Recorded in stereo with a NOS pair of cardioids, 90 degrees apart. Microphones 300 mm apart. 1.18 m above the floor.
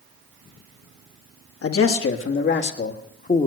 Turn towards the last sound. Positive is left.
turn(degrees=25)